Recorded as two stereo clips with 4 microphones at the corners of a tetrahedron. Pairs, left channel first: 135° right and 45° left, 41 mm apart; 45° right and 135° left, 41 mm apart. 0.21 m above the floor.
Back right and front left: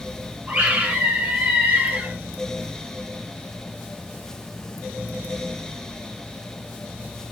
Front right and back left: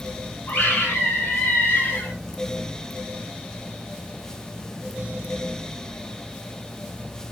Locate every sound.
0.5 s a scream: straight ahead, 5.5 m